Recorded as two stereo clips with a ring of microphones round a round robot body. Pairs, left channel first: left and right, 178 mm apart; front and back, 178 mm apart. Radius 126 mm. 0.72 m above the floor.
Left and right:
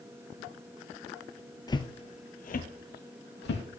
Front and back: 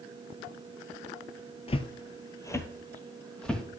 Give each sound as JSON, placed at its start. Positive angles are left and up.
{"t": 1.7, "sound": "footsteps", "azimuth_deg": 35, "distance_m": 0.8}